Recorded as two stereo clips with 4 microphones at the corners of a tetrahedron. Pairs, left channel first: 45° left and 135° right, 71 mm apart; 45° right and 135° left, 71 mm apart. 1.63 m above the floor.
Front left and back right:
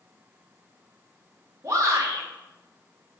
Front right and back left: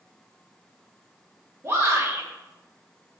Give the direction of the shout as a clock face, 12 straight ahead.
6 o'clock.